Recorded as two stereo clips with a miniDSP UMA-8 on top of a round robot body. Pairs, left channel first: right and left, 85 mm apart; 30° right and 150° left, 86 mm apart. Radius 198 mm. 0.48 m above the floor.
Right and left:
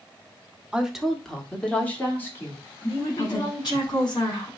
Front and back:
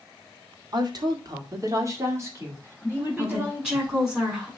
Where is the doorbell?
No doorbell in this recording.